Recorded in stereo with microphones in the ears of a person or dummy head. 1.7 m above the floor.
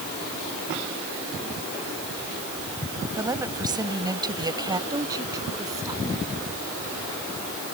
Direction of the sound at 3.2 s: 25° right (ahead or behind).